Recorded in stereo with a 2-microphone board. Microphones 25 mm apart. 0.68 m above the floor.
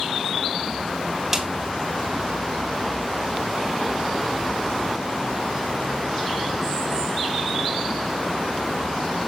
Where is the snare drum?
15° right (ahead or behind), 3.5 m.